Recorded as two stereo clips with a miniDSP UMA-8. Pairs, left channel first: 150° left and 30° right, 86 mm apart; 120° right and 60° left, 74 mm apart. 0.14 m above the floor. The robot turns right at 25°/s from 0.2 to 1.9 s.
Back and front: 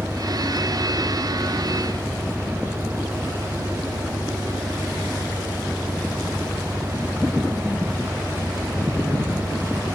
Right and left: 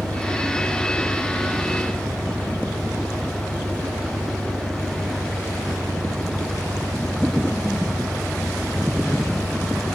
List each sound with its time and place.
0.0 s an engine running: 75° left; by 10.0 s 115° left